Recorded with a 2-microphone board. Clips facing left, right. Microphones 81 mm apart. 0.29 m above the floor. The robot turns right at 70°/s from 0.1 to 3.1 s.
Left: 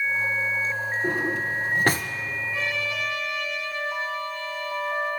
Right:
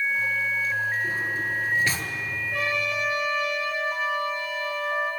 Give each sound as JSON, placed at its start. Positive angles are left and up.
{"t": 1.0, "sound": "a drawer", "side_deg": 65, "distance_m": 1.2}
{"t": 2.5, "sound": "a trumpet", "azimuth_deg": -60, "distance_m": 5.5}